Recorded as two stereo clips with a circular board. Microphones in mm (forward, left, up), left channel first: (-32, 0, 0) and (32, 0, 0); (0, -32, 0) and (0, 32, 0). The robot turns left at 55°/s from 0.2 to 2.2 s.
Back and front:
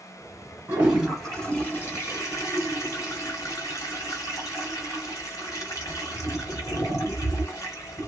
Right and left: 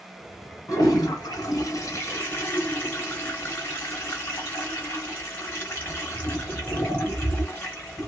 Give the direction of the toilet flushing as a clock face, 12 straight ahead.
2 o'clock.